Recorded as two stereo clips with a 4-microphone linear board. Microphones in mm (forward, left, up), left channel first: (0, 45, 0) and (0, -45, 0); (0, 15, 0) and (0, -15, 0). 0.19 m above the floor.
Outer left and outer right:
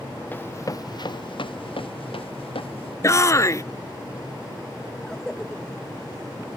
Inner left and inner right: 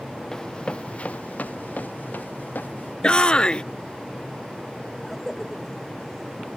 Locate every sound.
0.3 s running footsteps: 20° left (ahead or behind); by 2.9 s 85° left
3.0 s a shout: 35° left (ahead or behind)
5.0 s a cough: 5° left (ahead or behind)